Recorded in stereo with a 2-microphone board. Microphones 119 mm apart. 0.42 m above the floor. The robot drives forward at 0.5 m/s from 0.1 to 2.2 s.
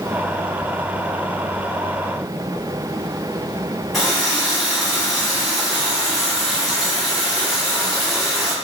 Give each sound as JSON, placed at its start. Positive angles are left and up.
{"t": 3.9, "sound": "a running tap", "side_deg": 0, "distance_m": 2.0}